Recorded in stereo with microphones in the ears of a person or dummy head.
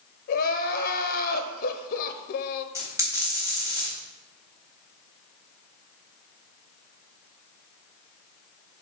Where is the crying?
50° left (ahead or behind), 0.7 m.